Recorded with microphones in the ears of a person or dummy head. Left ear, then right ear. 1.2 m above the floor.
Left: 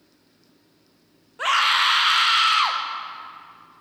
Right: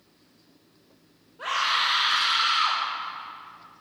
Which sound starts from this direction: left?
A scream, at 1.4 s.